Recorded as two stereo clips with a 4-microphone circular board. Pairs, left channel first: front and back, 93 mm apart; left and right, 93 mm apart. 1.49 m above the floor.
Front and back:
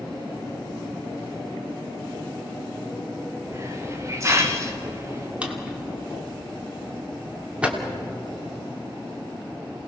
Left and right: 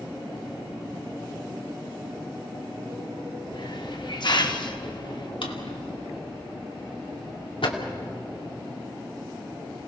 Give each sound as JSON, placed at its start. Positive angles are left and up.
{"t": 3.5, "sound": "a hiss", "azimuth_deg": 125, "distance_m": 2.0}
{"t": 5.4, "sound": "a drawer", "azimuth_deg": 100, "distance_m": 2.5}